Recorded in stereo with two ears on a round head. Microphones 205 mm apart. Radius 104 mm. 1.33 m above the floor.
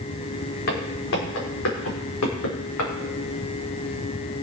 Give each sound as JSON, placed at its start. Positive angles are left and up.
{"t": 0.7, "sound": "footsteps", "side_deg": 60, "distance_m": 4.5}